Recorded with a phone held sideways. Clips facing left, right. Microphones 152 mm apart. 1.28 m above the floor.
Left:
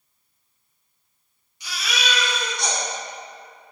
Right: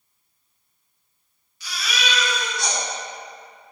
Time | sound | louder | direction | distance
1.6 | a baby crying | even | 20° left (ahead or behind) | 2 m